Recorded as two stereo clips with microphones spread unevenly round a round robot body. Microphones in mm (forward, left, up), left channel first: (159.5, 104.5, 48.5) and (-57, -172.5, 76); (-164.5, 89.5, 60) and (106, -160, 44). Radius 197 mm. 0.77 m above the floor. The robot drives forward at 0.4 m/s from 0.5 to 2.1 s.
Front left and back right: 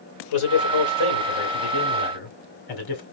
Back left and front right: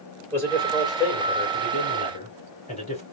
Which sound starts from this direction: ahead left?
A man speaking, at 0.3 s.